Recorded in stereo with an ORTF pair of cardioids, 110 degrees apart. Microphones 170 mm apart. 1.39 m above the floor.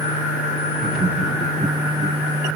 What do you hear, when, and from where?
0.8 s laughter: 5° left, 1.2 m; by 2.2 s 35° right, 1.8 m